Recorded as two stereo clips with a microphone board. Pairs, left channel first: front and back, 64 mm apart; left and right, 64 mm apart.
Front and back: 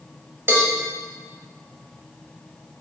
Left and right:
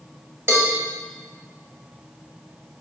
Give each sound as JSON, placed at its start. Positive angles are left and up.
{"t": 0.5, "sound": "a cowbell", "azimuth_deg": -135, "distance_m": 0.8}